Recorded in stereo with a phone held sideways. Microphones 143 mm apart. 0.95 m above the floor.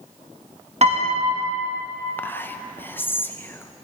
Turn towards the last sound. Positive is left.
turn(degrees=15)  # may be behind; listen again after turning